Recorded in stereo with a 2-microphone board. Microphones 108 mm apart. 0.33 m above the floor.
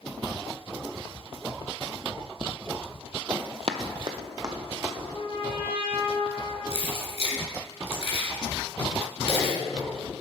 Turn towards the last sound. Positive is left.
turn(degrees=70)  # may be behind; listen again after turning